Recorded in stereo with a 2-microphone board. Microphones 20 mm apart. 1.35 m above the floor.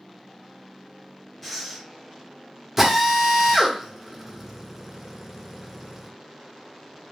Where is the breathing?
10° left (ahead or behind), 1.4 m.